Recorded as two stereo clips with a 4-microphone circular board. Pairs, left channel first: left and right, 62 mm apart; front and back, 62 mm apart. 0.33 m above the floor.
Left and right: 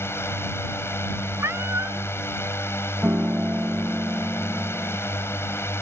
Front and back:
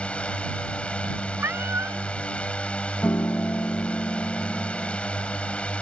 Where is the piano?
40° right.